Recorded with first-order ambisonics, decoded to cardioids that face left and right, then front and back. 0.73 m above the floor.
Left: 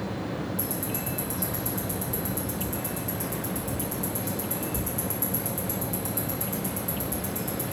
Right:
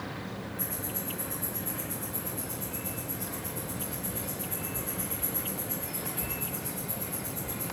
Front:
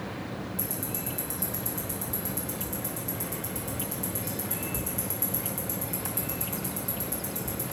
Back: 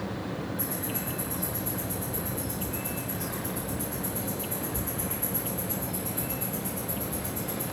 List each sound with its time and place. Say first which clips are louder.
0.6 s ticking: left 5 dB, back 2 dB; 50° left, 1.2 m